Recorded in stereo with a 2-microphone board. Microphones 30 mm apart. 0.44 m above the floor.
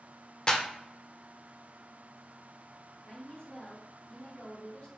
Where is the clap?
30° left (ahead or behind), 0.6 m.